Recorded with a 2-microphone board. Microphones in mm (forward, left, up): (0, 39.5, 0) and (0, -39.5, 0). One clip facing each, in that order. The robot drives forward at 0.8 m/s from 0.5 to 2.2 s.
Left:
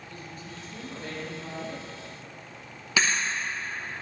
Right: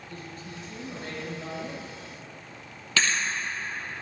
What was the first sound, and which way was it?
A woman speaking, 45° right (ahead or behind).